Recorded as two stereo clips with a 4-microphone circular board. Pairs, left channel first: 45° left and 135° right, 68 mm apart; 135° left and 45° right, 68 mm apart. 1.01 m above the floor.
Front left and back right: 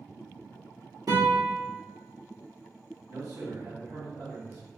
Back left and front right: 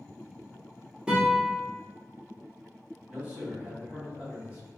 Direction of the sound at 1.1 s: 120° right.